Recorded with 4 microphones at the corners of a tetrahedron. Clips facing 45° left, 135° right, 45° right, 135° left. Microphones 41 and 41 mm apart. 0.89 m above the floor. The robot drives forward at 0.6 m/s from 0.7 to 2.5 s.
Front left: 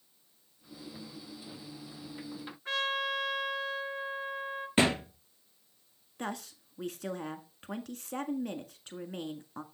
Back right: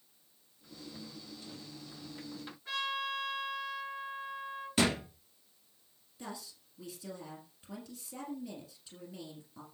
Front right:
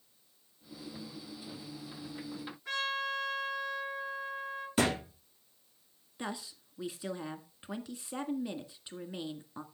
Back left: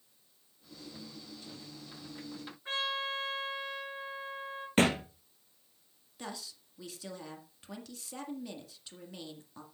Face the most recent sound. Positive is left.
turn(degrees=20)